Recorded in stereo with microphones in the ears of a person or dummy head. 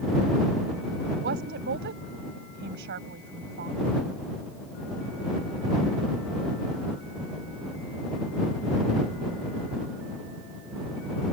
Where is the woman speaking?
60° right (ahead or behind).